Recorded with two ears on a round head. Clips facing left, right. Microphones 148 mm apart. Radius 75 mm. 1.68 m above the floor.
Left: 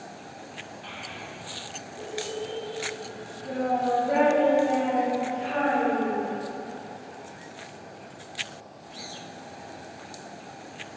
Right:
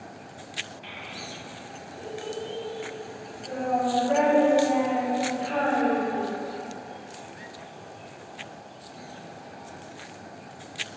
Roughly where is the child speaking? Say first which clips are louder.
Even; centre.